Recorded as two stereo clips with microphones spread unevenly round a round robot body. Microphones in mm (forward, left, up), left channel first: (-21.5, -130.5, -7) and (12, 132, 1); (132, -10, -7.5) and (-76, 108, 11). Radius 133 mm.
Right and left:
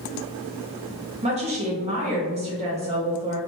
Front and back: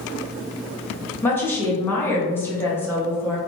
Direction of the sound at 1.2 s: 35° left.